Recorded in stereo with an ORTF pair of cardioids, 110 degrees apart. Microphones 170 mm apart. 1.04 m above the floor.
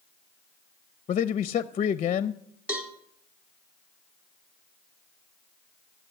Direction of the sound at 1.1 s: 40° left.